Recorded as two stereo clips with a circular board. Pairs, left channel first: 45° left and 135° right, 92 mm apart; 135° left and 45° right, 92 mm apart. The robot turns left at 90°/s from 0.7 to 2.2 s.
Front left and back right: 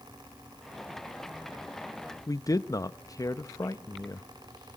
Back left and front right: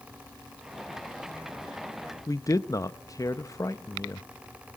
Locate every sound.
2.3 s a man speaking: 90° left, 0.7 m